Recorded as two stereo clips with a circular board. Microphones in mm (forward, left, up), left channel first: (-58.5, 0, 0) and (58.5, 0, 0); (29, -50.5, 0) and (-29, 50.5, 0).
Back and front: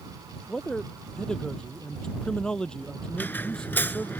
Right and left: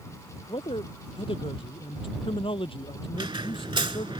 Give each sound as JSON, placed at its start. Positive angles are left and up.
{"t": 0.5, "sound": "a man speaking", "azimuth_deg": -95}
{"t": 3.1, "sound": "a squeak", "azimuth_deg": 115}